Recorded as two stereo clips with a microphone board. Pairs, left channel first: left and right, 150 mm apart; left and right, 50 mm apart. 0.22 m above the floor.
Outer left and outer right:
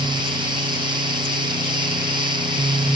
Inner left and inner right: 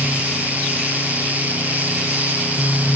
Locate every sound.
Only background noise.